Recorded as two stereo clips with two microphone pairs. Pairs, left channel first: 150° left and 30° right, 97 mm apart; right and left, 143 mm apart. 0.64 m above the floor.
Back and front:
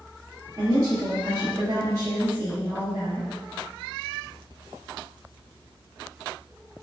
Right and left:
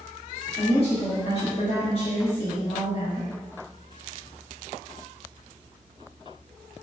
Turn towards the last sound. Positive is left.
turn(degrees=-70)